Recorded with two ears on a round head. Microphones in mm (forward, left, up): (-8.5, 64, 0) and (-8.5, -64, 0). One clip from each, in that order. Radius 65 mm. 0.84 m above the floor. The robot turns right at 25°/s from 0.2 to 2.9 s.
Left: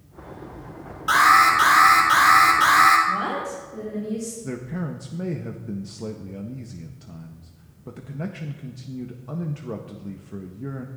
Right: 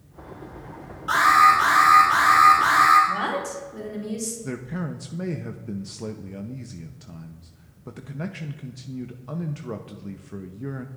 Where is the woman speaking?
80° right, 3.5 m.